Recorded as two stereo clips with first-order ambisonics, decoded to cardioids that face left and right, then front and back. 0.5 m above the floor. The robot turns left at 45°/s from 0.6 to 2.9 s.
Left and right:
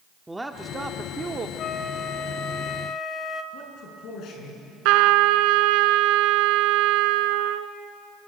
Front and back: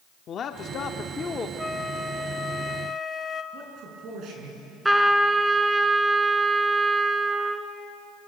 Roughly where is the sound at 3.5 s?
Behind left.